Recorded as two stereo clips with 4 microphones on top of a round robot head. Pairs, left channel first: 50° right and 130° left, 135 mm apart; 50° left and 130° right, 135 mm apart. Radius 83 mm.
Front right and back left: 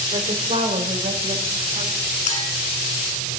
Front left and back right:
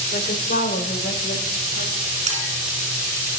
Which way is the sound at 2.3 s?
90° right.